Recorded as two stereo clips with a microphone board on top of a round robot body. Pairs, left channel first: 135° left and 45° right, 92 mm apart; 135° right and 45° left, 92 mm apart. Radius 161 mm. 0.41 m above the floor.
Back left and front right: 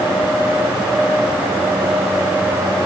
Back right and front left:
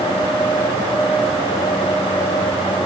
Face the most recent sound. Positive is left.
No sound to turn to.